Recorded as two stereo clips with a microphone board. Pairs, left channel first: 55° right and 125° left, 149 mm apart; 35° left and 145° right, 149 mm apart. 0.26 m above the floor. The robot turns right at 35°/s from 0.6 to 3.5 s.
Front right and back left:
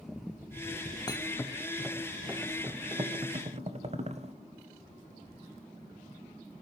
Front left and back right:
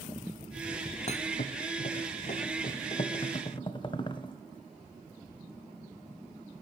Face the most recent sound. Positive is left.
turn(degrees=90)